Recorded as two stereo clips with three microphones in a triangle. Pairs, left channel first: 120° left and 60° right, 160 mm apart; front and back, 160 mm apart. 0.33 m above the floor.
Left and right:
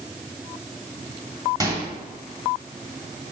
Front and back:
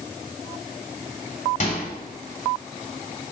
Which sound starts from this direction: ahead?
A microwave, at 1.6 s.